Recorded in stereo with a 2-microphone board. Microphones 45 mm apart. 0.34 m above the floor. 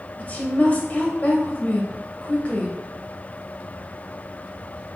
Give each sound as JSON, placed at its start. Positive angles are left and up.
{"t": 0.2, "sound": "a woman speaking", "side_deg": 35, "distance_m": 1.9}